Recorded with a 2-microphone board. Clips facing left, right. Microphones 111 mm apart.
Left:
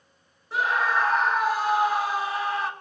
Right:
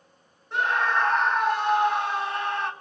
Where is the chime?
No chime in this recording.